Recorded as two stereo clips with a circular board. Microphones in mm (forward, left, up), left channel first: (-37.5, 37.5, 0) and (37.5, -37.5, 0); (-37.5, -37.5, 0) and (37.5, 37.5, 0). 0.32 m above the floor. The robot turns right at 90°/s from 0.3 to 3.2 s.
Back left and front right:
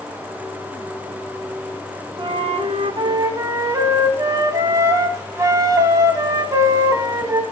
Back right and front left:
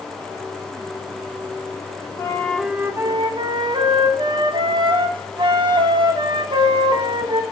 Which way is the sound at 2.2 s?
80° right.